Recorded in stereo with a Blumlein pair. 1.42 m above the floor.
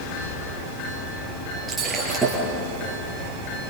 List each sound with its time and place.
1.7 s breaking glass: 15° right, 7.5 m